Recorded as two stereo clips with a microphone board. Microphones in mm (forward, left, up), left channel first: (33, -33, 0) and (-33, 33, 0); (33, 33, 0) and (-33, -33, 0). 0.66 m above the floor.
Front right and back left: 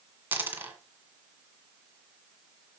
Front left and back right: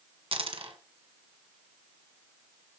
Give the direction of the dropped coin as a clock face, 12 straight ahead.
5 o'clock.